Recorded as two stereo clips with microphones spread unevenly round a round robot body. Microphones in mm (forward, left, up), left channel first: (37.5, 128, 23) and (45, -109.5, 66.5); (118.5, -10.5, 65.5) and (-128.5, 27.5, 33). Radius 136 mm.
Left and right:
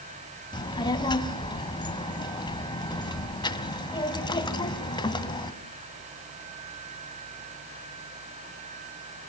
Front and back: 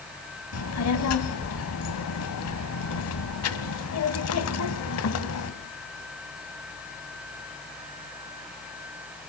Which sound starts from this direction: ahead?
A child speaking, at 0.5 s.